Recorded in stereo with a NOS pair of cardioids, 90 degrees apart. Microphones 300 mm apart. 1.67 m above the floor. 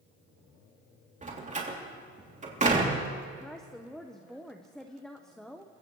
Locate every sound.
1.2 s a door slam: 25° right, 3 m
3.4 s a woman speaking: straight ahead, 1.1 m